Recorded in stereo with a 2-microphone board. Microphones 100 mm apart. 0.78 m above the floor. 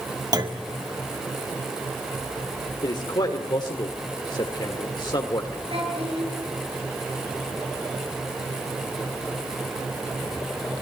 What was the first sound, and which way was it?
A clunk, 40° right (ahead or behind).